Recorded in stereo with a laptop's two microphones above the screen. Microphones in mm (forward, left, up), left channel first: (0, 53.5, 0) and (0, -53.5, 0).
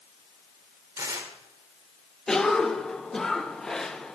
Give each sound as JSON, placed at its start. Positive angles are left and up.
{"t": 1.0, "sound": "tearing paper", "side_deg": -30, "distance_m": 1.4}
{"t": 2.3, "sound": "a cough", "side_deg": 5, "distance_m": 0.7}